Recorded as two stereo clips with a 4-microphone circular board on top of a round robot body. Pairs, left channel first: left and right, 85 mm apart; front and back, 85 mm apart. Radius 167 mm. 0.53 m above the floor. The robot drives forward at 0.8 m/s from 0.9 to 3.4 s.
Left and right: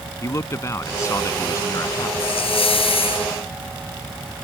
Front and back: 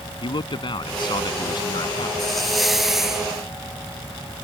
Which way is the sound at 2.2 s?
85° left.